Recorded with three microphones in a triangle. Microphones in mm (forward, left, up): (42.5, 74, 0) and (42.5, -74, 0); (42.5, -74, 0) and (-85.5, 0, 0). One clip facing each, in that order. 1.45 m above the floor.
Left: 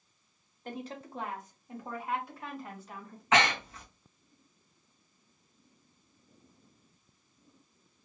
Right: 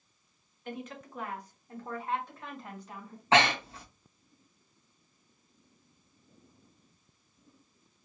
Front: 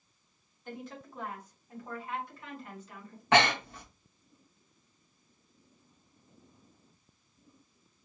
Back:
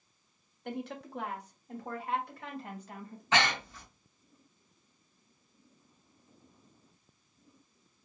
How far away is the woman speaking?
About 1.0 m.